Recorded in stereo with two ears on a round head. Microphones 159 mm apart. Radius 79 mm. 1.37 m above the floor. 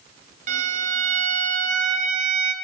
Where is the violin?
45° right (ahead or behind), 0.6 m.